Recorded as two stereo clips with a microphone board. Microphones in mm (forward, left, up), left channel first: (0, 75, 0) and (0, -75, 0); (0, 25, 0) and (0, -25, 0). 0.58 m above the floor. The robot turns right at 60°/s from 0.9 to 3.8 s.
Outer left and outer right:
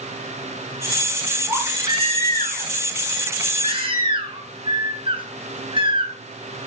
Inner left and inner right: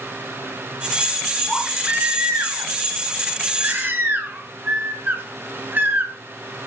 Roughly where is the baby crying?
Behind.